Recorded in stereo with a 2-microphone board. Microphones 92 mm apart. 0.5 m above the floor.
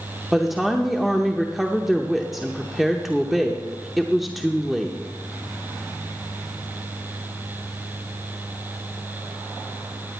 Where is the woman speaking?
Centre (ahead or behind), 0.8 m.